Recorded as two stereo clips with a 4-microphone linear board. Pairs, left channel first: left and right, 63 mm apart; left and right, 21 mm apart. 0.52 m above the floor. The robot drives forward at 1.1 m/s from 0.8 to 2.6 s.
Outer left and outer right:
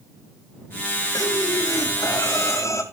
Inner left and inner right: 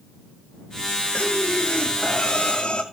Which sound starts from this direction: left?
Breathing, at 1.1 s.